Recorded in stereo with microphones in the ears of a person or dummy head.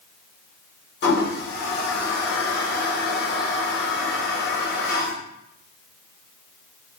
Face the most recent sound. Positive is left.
turn(degrees=60)  # may be behind; listen again after turning